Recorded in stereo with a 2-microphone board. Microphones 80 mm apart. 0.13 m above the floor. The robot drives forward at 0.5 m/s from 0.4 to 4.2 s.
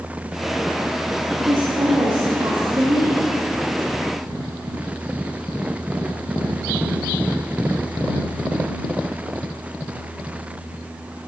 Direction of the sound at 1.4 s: 55° right (ahead or behind).